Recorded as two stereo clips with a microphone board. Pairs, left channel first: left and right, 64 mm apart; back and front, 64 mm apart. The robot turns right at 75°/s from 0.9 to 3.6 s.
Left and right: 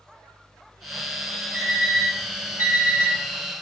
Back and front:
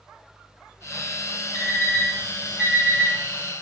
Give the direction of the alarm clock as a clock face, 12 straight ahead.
5 o'clock.